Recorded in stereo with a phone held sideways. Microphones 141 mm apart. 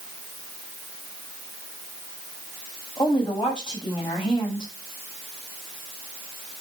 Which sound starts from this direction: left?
A woman speaking, at 3.0 s.